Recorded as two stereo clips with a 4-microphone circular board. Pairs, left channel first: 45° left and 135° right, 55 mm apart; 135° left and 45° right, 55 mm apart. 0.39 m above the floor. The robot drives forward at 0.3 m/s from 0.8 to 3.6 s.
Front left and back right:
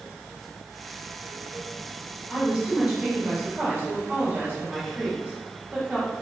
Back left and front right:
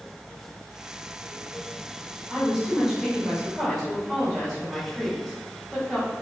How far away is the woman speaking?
About 1.0 m.